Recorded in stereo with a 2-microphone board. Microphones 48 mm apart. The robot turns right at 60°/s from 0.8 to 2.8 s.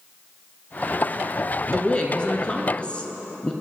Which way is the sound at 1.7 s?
15° left (ahead or behind).